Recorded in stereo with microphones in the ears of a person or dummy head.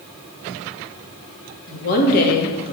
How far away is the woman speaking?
About 2 m.